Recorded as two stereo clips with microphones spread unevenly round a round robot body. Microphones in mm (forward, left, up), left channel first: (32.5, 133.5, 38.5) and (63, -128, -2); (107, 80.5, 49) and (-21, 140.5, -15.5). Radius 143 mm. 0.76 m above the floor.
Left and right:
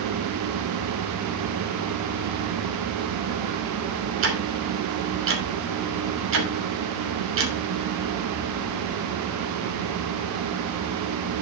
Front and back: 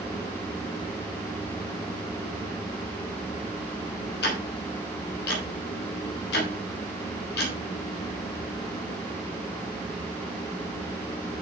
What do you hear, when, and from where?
4.2 s ticking: 55° right, 2.5 m